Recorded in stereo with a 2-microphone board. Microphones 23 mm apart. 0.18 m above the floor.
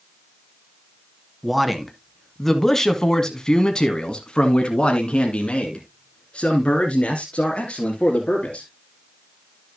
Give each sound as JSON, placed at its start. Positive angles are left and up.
{"t": 1.4, "sound": "a man speaking", "side_deg": -5, "distance_m": 1.6}